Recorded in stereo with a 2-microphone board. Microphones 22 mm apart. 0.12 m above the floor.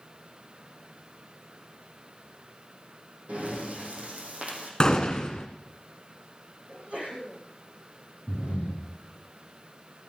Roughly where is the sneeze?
Right.